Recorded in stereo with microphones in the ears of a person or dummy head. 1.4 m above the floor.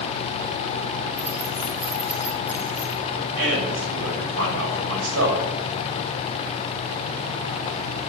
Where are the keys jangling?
10° right (ahead or behind), 4 m.